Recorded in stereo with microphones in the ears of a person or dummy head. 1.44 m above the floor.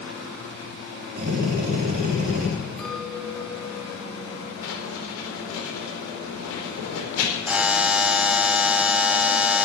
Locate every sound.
1.2 s a drill: 45° right (ahead or behind), 3.5 m
2.8 s a clink: 5° left (ahead or behind), 1.9 m
4.6 s writing: 80° left, 4.5 m
7.5 s a buzzer: 5° right (ahead or behind), 0.8 m